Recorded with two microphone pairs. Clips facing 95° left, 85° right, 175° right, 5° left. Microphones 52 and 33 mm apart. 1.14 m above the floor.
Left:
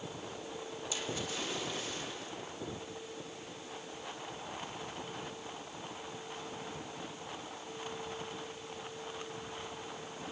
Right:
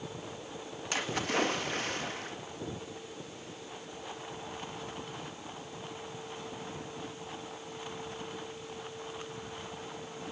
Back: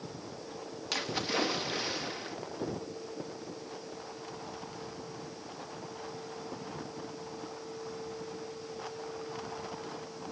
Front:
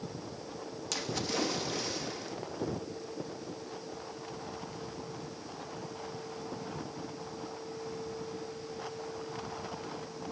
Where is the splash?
110° right, 1.8 m.